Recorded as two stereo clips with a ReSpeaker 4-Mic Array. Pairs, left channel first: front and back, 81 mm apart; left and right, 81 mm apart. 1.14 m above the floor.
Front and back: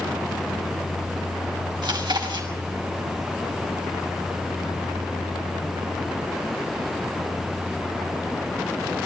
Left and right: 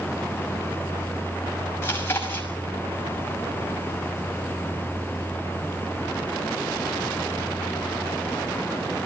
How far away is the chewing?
About 6 m.